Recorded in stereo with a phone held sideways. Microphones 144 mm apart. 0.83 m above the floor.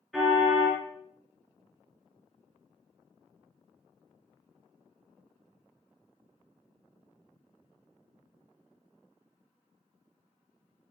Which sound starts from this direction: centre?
A car horn, at 0.1 s.